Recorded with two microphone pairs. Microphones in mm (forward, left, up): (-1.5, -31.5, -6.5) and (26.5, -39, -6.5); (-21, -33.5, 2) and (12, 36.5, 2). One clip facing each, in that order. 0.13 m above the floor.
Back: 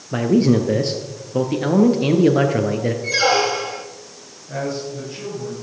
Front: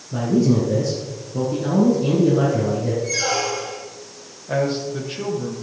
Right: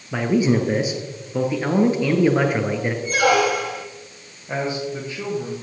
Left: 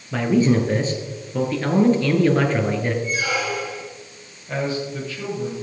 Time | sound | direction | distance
0.1 | a man speaking | 165° left | 2.0 m
3.0 | a squeak | 140° right | 1.1 m
4.5 | a man speaking | 45° right | 4 m